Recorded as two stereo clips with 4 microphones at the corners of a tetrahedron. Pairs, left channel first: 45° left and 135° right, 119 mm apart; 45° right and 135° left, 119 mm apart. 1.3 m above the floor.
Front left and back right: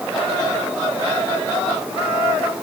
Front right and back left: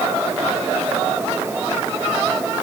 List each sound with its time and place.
Only background noise.